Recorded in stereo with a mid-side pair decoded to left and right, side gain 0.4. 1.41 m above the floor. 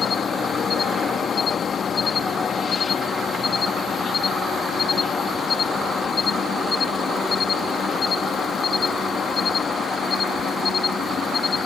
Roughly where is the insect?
Ahead left.